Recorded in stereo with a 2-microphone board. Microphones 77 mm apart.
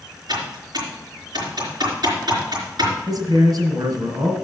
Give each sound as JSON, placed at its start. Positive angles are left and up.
{"t": 0.3, "sound": "typing on a keyboard", "side_deg": -70, "distance_m": 4.0}
{"t": 3.1, "sound": "a man speaking", "side_deg": -55, "distance_m": 2.5}